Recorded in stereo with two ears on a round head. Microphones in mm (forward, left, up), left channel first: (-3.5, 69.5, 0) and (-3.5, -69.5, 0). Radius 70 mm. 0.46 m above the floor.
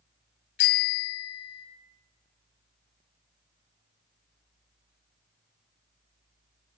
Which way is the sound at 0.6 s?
65° left (ahead or behind).